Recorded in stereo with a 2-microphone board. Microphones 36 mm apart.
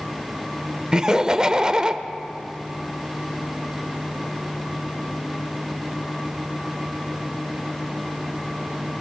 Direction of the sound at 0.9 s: 20° right (ahead or behind).